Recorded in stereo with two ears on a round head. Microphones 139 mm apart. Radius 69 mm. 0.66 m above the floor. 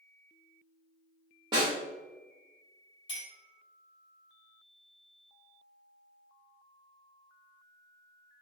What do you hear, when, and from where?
1.5 s a snare drum: 30° right (ahead or behind), 1.6 m
3.1 s a clink: 35° left (ahead or behind), 1.8 m